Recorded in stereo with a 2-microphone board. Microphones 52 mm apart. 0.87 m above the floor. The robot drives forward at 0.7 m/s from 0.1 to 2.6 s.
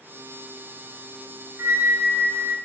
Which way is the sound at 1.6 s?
60° right (ahead or behind).